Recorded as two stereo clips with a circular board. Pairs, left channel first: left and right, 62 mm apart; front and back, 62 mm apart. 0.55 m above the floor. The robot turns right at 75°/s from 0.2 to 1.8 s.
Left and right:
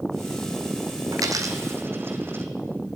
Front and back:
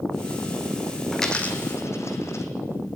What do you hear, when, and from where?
1.1 s a dropped coin: 90° right, 1.4 m; by 2.5 s 40° right, 1.4 m